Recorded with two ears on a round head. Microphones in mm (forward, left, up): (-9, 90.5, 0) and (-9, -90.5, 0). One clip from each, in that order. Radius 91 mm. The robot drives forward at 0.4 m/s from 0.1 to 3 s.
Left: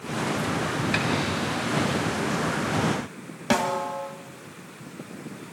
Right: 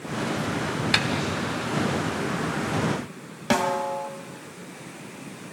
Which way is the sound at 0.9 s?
40° right (ahead or behind).